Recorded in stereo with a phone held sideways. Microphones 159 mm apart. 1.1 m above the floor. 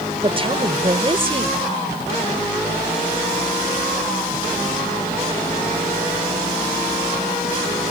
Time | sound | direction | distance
0.2 | a woman speaking | 35° right (ahead or behind) | ?